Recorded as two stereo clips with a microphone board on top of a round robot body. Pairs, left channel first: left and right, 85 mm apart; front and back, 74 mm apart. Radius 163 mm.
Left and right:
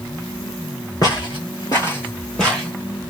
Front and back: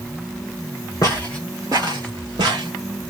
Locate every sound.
1.0 s footsteps: 50° left, 0.6 m; by 2.7 s 175° left, 1.0 m